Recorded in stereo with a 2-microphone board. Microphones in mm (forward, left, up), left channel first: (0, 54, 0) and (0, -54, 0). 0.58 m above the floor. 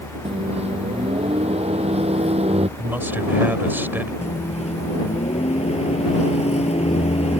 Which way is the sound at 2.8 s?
15° right (ahead or behind).